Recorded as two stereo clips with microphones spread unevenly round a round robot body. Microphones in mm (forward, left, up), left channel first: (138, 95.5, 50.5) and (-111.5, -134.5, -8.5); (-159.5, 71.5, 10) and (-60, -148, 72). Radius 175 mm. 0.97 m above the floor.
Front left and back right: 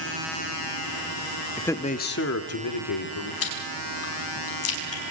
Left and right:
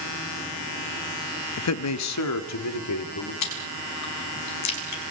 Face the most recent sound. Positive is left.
turn(degrees=95)